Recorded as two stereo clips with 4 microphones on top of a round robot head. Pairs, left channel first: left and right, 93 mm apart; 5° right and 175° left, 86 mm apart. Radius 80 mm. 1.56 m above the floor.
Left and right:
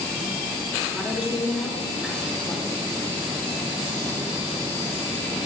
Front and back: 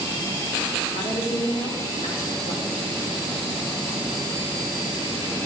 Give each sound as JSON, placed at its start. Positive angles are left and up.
{"t": 0.9, "sound": "a woman speaking", "azimuth_deg": -10, "distance_m": 2.5}